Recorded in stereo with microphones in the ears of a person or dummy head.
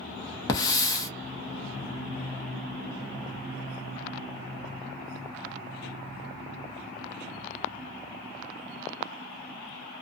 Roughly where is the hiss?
Left.